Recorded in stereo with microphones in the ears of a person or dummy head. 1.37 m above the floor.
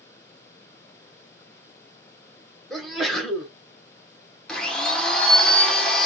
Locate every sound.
2.7 s a sneeze: 5° right (ahead or behind), 1.2 m
4.5 s a blender: 5° left (ahead or behind), 0.8 m